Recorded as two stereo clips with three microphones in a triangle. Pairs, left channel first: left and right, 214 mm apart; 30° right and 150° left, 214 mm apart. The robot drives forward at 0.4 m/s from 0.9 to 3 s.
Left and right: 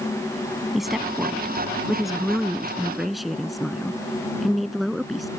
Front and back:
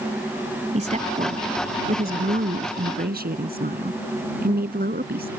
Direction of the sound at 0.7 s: Straight behind.